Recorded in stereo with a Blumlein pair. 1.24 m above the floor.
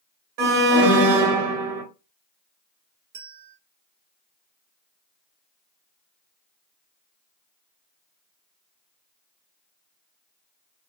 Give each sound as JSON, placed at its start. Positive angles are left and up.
{"t": 0.4, "sound": "an alarm", "azimuth_deg": -45, "distance_m": 1.7}
{"t": 3.1, "sound": "a bell", "azimuth_deg": -55, "distance_m": 1.2}